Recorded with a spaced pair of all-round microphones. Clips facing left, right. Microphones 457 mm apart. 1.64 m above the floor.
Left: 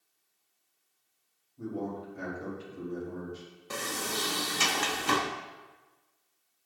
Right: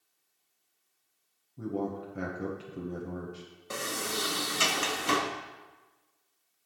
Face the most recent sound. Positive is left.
turn(degrees=5)  # may be behind; listen again after turning